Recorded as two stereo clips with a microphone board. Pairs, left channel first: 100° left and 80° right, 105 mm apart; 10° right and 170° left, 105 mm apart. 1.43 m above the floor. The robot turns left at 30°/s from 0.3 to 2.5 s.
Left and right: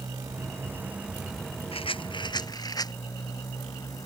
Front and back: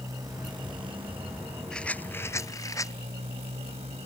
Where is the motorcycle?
135° right; by 4.1 s 160° left.